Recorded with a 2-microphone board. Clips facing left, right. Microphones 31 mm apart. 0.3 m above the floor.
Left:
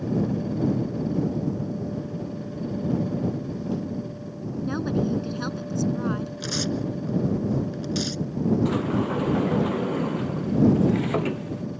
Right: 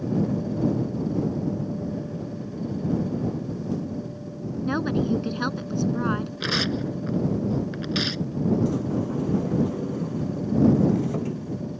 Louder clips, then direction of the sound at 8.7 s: Left 2 dB; 70° left (ahead or behind).